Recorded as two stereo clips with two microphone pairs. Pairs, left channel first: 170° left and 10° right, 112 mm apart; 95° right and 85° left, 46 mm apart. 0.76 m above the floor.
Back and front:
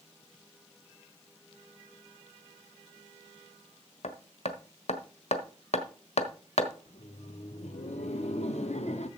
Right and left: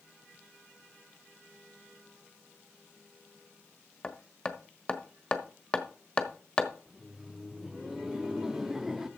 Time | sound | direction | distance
4.0 | hammering | 165° right | 1.2 m
6.9 | laughter | 160° left | 1.3 m